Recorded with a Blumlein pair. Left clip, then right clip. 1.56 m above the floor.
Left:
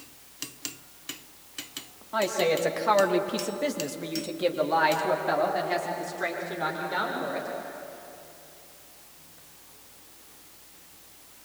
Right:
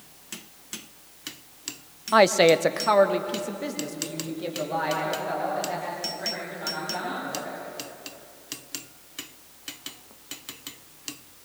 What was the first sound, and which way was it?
A woman speaking, 45° right.